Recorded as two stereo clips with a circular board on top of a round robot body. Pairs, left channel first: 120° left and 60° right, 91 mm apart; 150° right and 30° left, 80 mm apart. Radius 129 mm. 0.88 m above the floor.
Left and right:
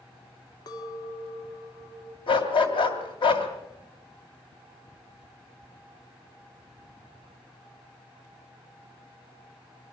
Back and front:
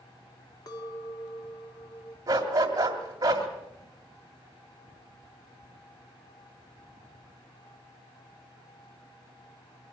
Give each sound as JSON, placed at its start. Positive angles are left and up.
{"t": 0.7, "sound": "a clink", "azimuth_deg": 170, "distance_m": 1.7}
{"t": 2.3, "sound": "a dog barking", "azimuth_deg": 85, "distance_m": 2.5}